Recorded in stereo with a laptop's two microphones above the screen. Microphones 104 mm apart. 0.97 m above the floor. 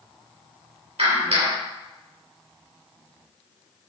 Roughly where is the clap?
Right.